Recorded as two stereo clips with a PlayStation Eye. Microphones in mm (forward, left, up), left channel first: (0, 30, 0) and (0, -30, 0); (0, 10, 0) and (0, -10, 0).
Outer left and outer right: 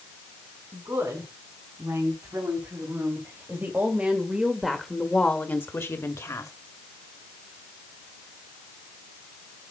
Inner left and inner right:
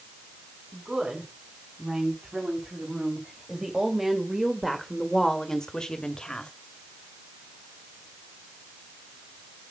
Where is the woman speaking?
55° right (ahead or behind), 4.5 m; by 6.5 s 60° left (ahead or behind), 2 m.